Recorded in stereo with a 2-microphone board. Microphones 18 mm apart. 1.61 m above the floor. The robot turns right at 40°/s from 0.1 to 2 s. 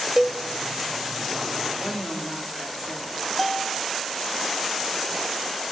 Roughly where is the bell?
Centre.